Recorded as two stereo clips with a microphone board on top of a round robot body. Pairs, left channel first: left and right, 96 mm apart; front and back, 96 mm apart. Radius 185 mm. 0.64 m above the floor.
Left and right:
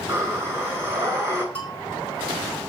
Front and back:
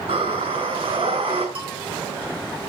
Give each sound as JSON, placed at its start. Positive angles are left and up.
{"t": 0.1, "sound": "breathing", "azimuth_deg": -155, "distance_m": 5.5}
{"t": 1.6, "sound": "a bell", "azimuth_deg": 165, "distance_m": 6.5}